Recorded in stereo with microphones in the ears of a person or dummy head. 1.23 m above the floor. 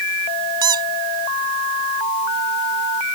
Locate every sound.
0.6 s a squeak: 30° right (ahead or behind)